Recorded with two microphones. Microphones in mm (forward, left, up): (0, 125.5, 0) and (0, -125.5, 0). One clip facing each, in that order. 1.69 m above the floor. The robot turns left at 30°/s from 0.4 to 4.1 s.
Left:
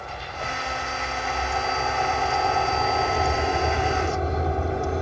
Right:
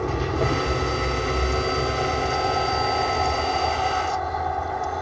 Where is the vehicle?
100° right; by 5.0 s 150° left.